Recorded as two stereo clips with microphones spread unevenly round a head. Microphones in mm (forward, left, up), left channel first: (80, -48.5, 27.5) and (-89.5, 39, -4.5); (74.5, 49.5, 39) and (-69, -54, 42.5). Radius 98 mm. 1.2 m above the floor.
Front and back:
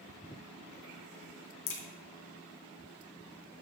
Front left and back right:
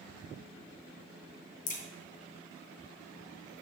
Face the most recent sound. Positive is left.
turn(degrees=-10)